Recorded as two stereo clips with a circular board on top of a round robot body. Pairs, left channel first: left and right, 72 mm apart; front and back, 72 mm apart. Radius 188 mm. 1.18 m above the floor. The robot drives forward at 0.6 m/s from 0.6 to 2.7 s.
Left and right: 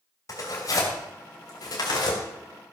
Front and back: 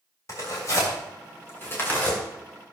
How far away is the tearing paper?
About 2.5 m.